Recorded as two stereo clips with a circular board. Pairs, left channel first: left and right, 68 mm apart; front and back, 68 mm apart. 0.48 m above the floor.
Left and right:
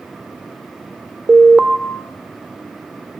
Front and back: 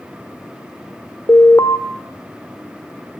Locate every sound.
1.3 s an alarm: 5° right, 1.1 m